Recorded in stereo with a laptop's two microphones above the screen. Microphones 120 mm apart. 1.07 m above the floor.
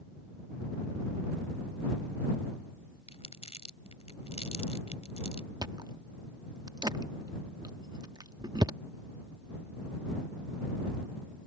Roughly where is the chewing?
Right.